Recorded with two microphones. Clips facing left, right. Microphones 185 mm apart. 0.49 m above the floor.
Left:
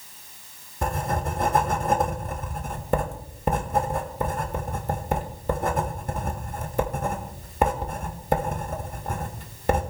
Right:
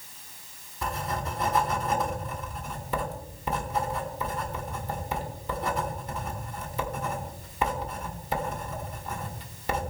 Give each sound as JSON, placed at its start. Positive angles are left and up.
{"t": 0.8, "sound": "writing", "side_deg": 50, "distance_m": 1.5}